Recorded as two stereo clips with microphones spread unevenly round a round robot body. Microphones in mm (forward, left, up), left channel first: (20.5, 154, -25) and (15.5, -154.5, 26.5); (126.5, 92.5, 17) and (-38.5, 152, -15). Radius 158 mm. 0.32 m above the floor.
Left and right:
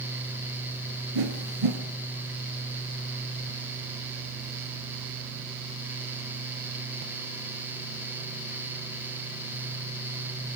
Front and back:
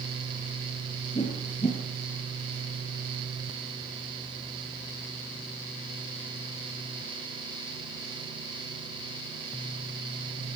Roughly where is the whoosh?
Right.